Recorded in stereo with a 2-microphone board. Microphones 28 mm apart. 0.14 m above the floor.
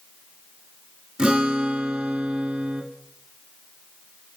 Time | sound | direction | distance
1.2 | a guitar | 40° right (ahead or behind) | 2.5 m